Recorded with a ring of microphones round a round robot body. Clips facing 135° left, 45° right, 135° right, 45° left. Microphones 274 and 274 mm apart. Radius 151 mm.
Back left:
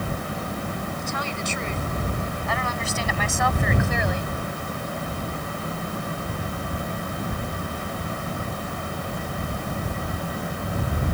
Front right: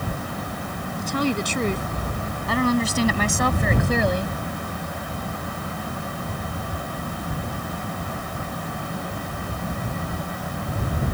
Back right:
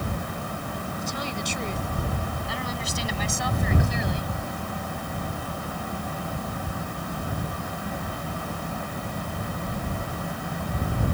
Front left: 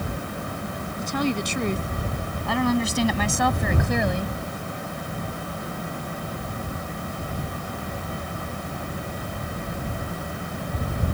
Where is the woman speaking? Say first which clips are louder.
Front right 7 dB, front left 12 dB; 10° left; by 4.4 s 5° left.